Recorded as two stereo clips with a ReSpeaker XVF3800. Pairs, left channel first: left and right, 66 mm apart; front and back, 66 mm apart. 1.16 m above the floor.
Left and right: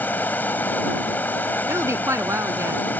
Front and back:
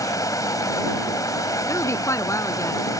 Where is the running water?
30° left.